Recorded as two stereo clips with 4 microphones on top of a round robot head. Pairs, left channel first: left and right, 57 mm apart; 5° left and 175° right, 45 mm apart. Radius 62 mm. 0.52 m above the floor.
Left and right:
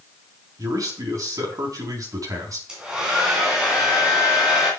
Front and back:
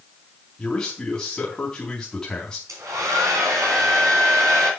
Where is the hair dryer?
170° right, 3 m.